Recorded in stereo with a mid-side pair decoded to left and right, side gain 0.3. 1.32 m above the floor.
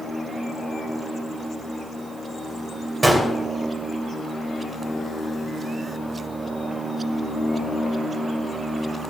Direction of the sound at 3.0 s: 35° right.